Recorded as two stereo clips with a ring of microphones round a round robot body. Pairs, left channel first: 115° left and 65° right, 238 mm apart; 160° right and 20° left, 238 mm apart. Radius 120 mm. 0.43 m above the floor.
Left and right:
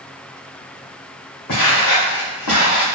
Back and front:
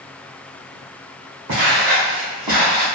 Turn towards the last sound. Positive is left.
turn(degrees=80)